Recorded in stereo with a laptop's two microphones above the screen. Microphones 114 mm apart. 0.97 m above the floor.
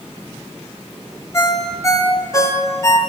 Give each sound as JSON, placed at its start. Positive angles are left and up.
{"t": 1.3, "sound": "a ringtone", "side_deg": 25, "distance_m": 0.5}